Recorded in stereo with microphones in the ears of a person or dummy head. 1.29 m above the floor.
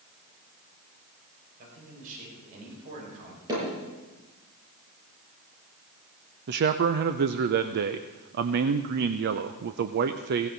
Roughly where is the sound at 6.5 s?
Right.